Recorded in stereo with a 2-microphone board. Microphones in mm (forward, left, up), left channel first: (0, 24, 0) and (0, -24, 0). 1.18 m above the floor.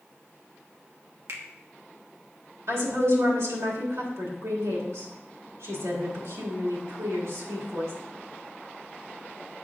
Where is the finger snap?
65° right (ahead or behind), 1.1 m.